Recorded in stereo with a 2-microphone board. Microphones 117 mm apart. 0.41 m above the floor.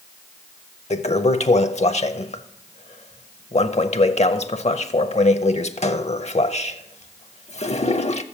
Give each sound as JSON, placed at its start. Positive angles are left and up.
{"t": 0.9, "sound": "a toilet flushing", "side_deg": 70, "distance_m": 0.6}